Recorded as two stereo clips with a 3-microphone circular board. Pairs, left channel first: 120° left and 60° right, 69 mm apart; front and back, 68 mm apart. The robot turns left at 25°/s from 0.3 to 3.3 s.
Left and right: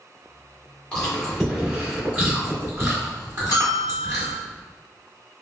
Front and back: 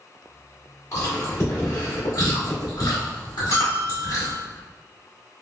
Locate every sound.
0.9 s chewing: 45° left, 1.7 m; by 4.3 s 15° right, 1.7 m
3.5 s a bell: 135° left, 1.2 m